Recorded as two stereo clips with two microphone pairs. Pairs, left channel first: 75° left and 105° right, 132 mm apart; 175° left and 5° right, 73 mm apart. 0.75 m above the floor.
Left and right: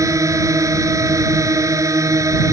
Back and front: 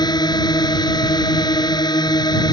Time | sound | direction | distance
0.0 | a drone | 170° right | ?